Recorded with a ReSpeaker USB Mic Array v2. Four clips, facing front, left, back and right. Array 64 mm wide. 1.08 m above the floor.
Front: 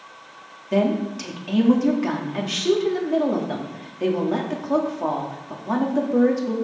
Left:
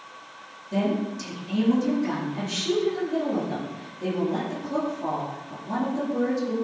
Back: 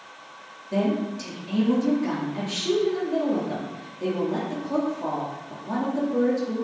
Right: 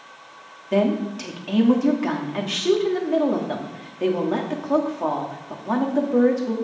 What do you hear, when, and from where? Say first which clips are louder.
0.7 s a woman speaking: right 5 dB, front 4 dB; 60° right, 2.5 m